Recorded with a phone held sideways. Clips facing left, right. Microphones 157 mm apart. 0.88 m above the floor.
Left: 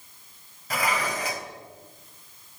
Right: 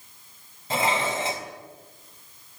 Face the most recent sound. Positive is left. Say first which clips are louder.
# right 3 dB
turn(degrees=-25)  # may be behind; listen again after turning